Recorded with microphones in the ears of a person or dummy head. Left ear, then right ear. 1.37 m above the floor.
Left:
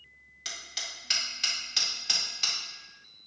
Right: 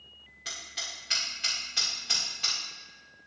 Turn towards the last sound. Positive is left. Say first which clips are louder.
# even
turn(degrees=30)  # may be behind; listen again after turning